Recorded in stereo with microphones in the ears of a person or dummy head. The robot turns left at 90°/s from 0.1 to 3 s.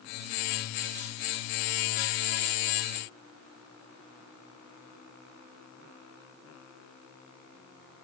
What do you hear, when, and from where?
Only background noise.